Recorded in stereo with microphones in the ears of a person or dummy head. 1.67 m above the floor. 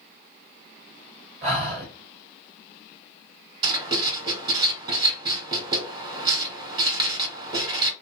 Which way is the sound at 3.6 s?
20° right (ahead or behind).